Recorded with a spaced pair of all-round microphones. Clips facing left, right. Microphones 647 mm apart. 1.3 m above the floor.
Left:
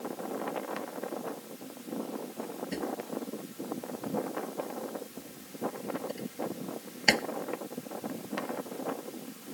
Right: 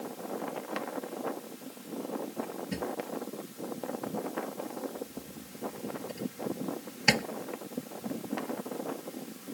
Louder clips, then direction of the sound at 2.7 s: Even; 35° right (ahead or behind).